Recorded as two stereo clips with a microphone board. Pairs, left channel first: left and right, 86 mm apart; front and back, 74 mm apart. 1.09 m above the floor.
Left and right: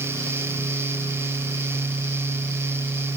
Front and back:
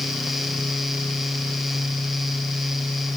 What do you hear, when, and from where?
Only background noise.